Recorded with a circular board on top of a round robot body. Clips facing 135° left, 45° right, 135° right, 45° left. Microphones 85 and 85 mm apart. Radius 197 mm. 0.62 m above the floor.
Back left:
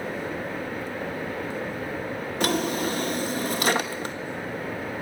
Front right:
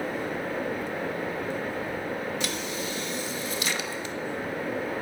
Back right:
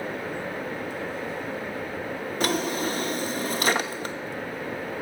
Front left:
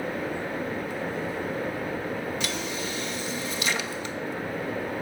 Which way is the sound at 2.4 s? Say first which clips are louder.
Back left 7 dB, back right 6 dB; 175° left.